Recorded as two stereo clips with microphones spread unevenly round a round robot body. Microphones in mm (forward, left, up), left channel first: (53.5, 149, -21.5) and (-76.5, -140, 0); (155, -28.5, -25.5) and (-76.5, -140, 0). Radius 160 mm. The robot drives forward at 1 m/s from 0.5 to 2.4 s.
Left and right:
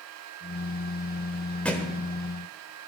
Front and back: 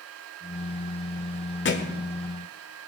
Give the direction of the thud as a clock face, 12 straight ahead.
1 o'clock.